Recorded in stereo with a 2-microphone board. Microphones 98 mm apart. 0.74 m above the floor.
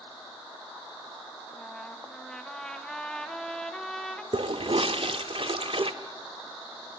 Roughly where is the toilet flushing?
Right.